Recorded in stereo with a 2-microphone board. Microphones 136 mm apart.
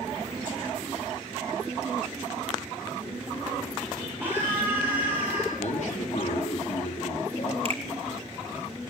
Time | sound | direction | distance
4.2 | a scream | 15° right (ahead or behind) | 4 m
5.6 | a man speaking | 65° left (ahead or behind) | 6 m
7.7 | a finger snap | 50° right (ahead or behind) | 4 m